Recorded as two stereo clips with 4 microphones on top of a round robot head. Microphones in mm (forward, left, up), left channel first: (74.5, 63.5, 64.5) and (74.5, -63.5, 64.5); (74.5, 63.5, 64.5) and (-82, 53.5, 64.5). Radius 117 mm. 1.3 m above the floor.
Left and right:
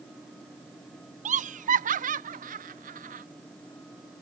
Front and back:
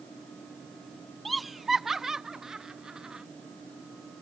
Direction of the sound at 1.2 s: 85° right.